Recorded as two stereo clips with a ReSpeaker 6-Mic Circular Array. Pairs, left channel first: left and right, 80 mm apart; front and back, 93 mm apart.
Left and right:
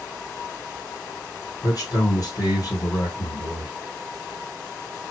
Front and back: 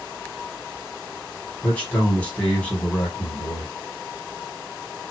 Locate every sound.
1.6 s a man speaking: 70° left, 2 m